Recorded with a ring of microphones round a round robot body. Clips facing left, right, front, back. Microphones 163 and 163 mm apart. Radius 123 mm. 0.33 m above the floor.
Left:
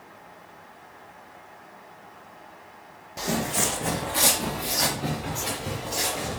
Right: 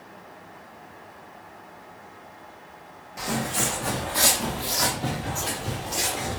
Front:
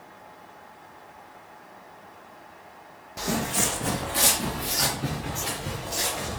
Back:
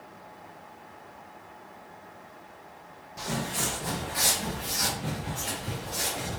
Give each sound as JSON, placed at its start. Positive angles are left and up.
{"t": 3.2, "sound": "footsteps", "azimuth_deg": 25, "distance_m": 0.7}